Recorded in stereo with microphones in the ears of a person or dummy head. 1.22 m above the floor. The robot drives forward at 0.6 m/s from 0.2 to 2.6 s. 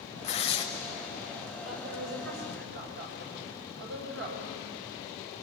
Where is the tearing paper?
30° left (ahead or behind), 1.0 m; by 0.7 s 25° left (ahead or behind), 1.2 m.